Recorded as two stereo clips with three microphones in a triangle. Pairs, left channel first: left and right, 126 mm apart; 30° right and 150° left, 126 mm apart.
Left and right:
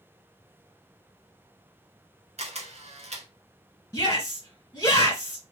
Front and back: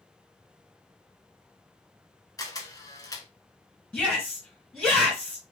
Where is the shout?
55° left, 2.0 m.